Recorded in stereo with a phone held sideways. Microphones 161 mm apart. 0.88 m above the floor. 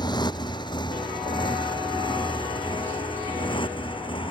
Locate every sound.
0.0 s a motorcycle: 25° left (ahead or behind); by 4.3 s 30° left (ahead or behind)